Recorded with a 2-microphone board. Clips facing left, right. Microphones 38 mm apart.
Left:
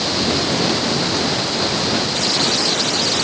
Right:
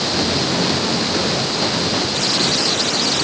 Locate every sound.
Only background noise.